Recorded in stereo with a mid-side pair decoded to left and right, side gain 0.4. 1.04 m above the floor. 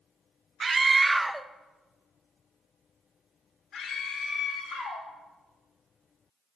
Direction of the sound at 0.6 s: 40° right.